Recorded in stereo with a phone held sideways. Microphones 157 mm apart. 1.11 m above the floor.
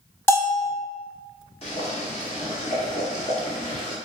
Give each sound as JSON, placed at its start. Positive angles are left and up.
{"t": 0.3, "sound": "a bell", "side_deg": 15, "distance_m": 0.7}
{"t": 1.6, "sound": "boiling", "side_deg": 45, "distance_m": 1.2}